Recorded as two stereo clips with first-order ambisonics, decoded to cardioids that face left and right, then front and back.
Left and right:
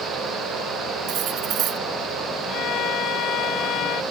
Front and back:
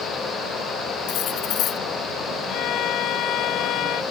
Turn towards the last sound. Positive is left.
turn(degrees=45)